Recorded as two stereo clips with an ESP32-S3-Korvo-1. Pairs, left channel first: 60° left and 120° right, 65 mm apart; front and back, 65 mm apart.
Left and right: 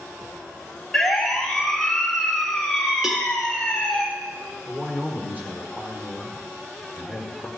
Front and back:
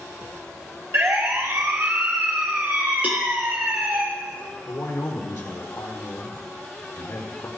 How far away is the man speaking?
About 4 m.